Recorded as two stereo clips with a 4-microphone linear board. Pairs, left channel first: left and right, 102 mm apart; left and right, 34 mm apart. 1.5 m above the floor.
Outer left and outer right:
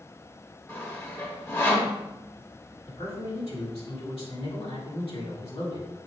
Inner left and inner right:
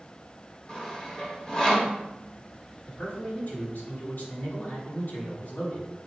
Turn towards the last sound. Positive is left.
turn(degrees=75)  # may be behind; listen again after turning